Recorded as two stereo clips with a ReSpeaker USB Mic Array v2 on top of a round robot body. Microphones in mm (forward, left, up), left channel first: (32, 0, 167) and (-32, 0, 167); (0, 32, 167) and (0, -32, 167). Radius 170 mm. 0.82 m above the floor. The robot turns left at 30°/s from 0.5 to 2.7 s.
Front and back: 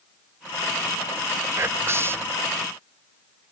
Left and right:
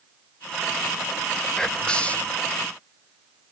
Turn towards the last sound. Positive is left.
turn(degrees=130)